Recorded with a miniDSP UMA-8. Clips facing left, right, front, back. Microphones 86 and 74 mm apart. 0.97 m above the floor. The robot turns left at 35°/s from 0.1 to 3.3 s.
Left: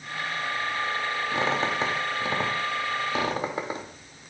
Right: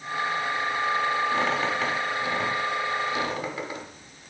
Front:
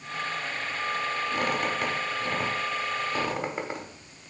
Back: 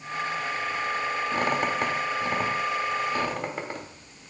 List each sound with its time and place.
1.3 s a squeak: 150° left, 0.7 m; by 3.9 s 80° left, 0.7 m